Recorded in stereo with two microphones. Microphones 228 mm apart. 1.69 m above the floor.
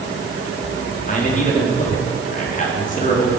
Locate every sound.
1.1 s a man speaking: 35° left (ahead or behind), 4 m